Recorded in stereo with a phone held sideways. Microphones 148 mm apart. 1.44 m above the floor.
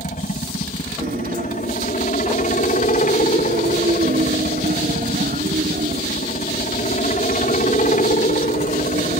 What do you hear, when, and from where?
0.0 s a helicopter: 60° left (ahead or behind)
1.0 s a guitar: 70° right (ahead or behind)